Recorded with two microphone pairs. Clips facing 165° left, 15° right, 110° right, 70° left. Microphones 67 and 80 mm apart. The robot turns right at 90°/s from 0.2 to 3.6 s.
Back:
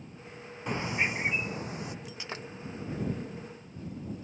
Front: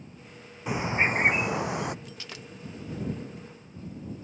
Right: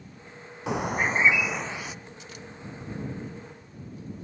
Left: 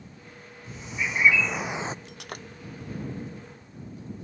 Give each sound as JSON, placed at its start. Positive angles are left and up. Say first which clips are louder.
{"t": 0.7, "sound": "a bird", "louder": "front 5 dB, right 7 dB", "azimuth_deg": -100}
{"t": 2.0, "sound": "breaking glass", "louder": "back 3 dB, left 3 dB", "azimuth_deg": 80}